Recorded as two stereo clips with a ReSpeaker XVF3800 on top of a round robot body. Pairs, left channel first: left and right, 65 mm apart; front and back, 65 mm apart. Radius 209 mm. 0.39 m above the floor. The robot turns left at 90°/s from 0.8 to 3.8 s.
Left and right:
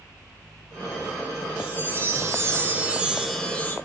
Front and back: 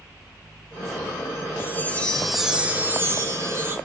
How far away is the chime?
About 0.9 m.